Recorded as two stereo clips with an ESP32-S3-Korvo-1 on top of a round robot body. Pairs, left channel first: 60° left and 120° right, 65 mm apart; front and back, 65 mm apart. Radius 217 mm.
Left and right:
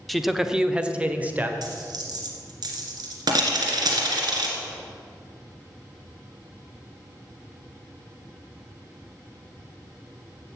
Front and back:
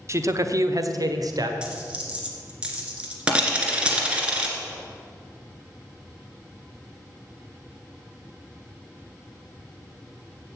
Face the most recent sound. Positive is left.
turn(degrees=-105)